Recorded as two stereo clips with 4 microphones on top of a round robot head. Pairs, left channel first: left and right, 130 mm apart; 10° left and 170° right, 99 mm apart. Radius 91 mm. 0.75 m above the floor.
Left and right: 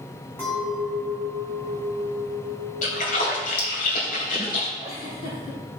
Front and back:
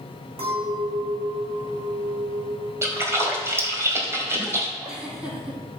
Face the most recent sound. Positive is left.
turn(degrees=110)